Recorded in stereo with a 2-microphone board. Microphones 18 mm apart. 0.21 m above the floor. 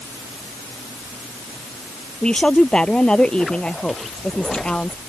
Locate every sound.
2.2 s a woman speaking: 45° left (ahead or behind); by 5.0 s 55° left (ahead or behind)